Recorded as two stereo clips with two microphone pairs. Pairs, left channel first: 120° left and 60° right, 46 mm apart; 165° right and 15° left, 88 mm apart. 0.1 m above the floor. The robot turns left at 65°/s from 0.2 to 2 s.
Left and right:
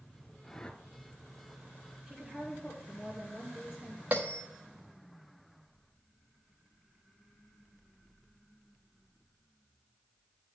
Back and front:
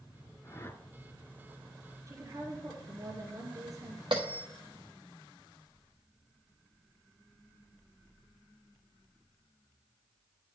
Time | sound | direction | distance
0.4 | a whoosh | straight behind | 0.7 m
2.1 | a woman speaking | 10° left | 2 m
4.1 | a bell | 10° right | 1.6 m